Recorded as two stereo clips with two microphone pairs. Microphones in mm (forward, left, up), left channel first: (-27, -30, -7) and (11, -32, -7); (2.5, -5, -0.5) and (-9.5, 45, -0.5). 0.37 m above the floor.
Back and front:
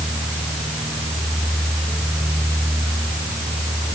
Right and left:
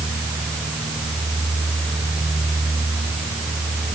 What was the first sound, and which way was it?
Only background noise.